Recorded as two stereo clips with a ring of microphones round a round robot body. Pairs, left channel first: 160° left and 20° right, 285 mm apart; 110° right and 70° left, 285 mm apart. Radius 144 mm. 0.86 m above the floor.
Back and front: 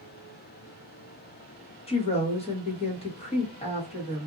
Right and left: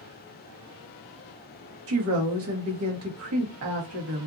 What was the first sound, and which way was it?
A woman speaking, 90° left.